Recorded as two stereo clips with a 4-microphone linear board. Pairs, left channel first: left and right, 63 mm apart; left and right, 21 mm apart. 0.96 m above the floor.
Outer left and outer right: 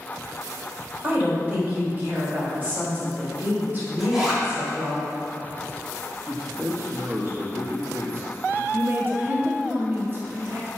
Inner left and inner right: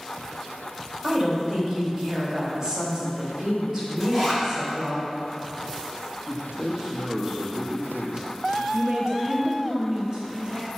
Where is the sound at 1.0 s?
30° right (ahead or behind), 3 m.